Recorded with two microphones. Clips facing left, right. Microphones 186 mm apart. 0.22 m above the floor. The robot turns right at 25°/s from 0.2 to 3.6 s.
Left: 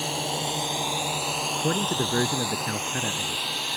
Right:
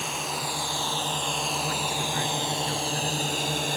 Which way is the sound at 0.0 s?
145° left.